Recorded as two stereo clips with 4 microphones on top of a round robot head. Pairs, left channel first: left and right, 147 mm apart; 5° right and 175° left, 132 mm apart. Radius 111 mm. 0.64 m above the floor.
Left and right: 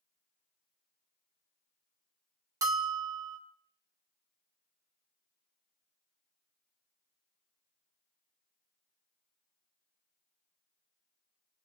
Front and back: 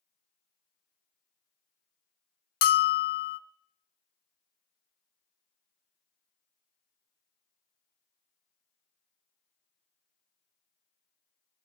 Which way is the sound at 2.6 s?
20° right.